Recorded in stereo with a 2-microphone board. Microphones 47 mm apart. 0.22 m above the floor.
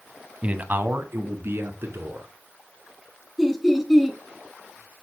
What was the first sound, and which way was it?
A man speaking, 30° right (ahead or behind).